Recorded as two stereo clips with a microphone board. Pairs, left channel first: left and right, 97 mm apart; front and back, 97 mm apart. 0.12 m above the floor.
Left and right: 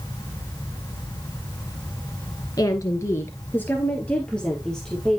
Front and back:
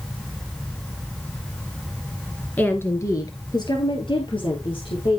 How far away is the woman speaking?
About 2 m.